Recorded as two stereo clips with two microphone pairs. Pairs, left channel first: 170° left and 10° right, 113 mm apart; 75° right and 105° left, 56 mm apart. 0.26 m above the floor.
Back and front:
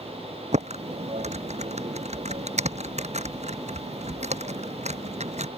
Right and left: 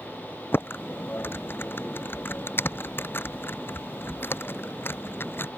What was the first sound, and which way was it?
Typing on a keyboard, 25° right.